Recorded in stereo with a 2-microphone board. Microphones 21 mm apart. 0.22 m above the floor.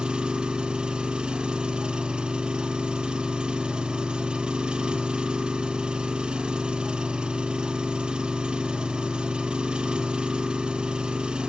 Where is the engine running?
45° right (ahead or behind), 1.3 m.